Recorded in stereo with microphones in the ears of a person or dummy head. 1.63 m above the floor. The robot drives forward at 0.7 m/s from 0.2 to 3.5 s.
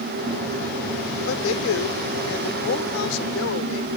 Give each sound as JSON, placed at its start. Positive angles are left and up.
{"t": 1.3, "sound": "a man speaking", "side_deg": 85}